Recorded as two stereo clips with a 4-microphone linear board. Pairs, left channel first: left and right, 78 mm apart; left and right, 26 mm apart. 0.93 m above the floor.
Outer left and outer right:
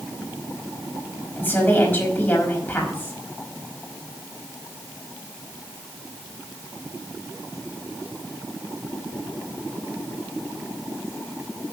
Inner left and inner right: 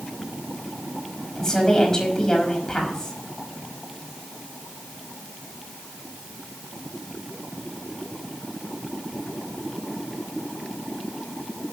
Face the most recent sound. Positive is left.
turn(degrees=25)  # may be behind; listen again after turning